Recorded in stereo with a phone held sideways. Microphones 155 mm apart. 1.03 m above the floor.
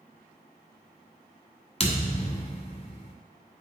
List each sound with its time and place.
1.8 s a thud: 40° left (ahead or behind), 1.1 m